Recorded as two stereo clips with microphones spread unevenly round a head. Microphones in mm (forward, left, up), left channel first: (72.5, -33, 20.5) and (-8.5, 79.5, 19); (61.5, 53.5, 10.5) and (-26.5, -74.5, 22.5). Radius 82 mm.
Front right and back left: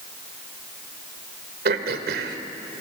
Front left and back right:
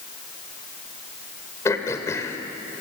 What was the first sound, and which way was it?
Throat clearing, 130° left.